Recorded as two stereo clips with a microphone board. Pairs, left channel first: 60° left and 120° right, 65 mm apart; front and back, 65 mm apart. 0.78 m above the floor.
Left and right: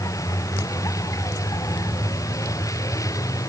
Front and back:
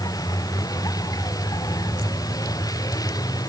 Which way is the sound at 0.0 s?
25° left.